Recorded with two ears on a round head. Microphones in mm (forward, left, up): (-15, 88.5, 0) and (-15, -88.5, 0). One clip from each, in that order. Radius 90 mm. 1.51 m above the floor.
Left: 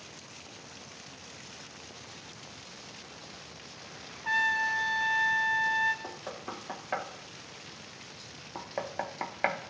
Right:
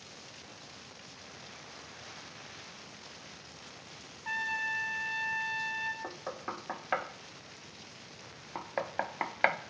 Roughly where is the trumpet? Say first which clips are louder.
Left 6 dB; centre.